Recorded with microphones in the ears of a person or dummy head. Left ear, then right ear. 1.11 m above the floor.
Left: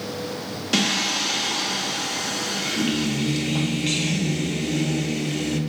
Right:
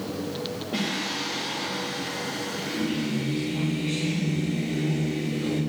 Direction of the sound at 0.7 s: 60° left (ahead or behind).